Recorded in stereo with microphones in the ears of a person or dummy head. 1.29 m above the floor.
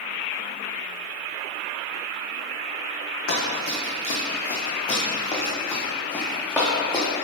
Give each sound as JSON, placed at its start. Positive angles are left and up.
{"t": 3.3, "sound": "running footsteps", "side_deg": 50, "distance_m": 3.0}